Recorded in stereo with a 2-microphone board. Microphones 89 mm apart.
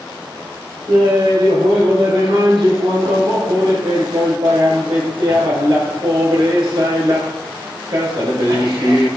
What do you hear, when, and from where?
0.9 s laughter: 70° right (ahead or behind), 3.5 m